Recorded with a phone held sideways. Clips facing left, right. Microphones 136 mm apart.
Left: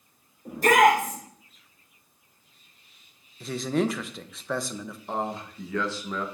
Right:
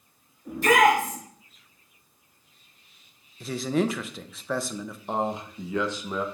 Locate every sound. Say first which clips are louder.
0.5 s a shout: left 1 dB; 45° left (ahead or behind), 4 m
3.4 s a man speaking: right 1 dB; centre (ahead or behind), 0.6 m
5.1 s a man speaking: right 3 dB; 20° right (ahead or behind), 0.9 m